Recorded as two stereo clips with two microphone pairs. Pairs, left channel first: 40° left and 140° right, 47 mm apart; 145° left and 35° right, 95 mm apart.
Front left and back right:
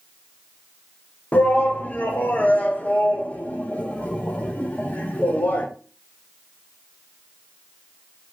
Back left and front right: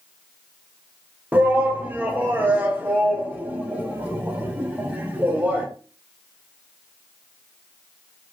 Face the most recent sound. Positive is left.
turn(degrees=25)